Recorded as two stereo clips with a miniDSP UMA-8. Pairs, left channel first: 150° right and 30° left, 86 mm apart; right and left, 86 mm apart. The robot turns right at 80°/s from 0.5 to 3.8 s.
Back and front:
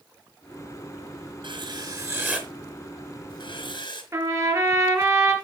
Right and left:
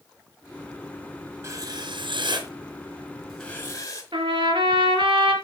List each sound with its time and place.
1.4 s writing: 30° left, 3.5 m; by 4.0 s 140° right, 3.5 m
4.1 s a trumpet: 85° left, 3 m